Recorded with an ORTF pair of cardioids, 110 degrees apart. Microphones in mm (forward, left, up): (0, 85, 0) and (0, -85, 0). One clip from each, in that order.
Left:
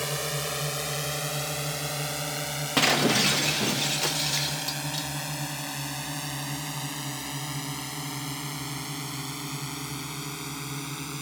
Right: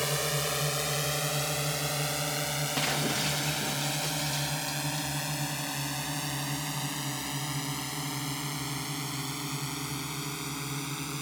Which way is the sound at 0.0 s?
5° right.